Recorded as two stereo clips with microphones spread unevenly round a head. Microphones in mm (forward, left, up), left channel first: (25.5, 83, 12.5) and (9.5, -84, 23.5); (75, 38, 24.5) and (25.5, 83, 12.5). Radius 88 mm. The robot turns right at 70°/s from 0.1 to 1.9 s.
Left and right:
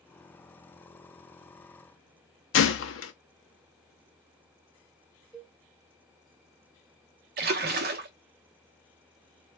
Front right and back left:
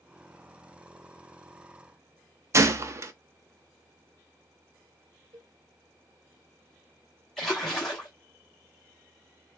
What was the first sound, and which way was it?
A gunshot, 90° left.